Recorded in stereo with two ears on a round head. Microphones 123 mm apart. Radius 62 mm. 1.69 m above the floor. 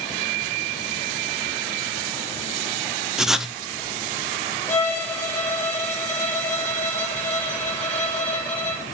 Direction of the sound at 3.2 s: 5° right (ahead or behind).